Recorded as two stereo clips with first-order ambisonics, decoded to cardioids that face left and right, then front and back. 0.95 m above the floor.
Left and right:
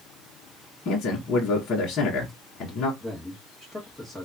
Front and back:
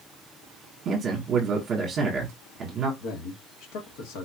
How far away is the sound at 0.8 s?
About 1.1 m.